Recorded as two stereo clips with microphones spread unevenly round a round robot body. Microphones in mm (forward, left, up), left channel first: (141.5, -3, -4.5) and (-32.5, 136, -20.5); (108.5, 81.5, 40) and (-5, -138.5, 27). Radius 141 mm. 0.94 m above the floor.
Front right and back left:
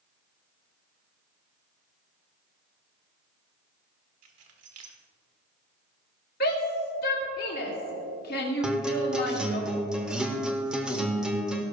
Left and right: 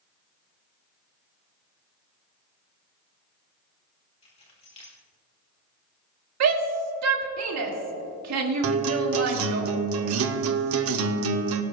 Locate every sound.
4.2 s keys jangling: 135° left, 2 m
6.4 s a shout: 100° right, 2 m
8.6 s a guitar: 130° right, 0.7 m